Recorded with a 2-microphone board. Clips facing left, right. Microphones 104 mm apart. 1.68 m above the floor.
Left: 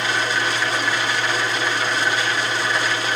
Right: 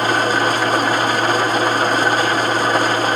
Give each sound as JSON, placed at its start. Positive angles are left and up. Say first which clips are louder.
{"t": 0.0, "sound": "an engine running", "louder": "right 6 dB", "side_deg": -45, "distance_m": 0.8}